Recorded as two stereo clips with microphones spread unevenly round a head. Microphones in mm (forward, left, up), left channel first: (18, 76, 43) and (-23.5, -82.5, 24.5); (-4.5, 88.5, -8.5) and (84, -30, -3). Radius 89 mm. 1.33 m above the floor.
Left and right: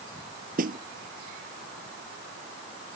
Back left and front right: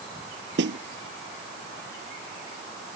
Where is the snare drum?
65° right.